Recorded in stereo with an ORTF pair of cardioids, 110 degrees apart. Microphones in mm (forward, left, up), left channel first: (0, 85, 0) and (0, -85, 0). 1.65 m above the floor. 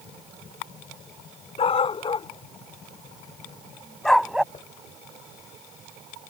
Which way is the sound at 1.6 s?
35° left.